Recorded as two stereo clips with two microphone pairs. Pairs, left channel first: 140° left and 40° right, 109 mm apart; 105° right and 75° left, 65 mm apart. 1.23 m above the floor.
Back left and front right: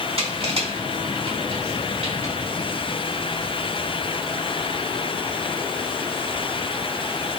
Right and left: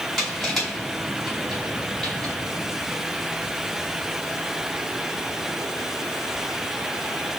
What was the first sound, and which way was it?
Crushing, 20° right.